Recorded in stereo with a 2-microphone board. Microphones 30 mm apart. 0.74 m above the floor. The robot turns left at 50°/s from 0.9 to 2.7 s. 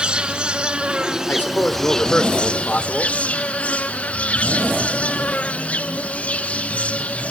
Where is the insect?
145° right, 1.9 m; by 7.3 s 125° left, 1.9 m.